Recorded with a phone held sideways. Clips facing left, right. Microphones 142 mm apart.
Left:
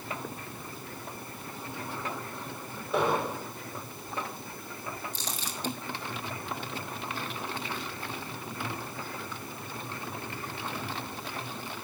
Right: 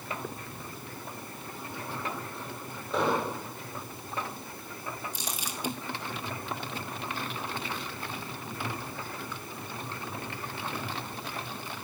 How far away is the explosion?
About 7.5 m.